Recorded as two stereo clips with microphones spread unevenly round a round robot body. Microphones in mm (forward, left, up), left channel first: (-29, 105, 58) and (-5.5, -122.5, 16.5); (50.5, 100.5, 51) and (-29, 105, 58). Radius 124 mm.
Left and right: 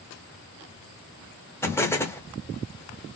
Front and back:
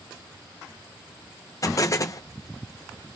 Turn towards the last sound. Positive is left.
turn(degrees=10)